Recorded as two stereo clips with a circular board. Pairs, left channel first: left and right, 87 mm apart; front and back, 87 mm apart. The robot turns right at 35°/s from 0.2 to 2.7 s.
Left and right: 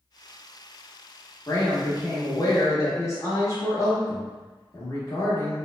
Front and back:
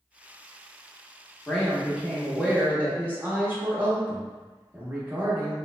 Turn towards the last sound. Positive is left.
turn(degrees=120)